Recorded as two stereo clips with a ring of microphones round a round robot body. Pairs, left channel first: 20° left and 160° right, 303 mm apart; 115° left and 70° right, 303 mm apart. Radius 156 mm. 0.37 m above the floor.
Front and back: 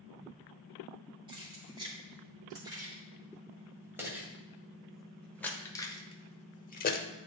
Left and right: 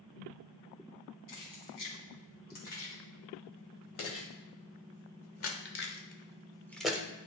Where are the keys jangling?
125° left, 3.5 m; by 7.1 s 5° left, 0.9 m.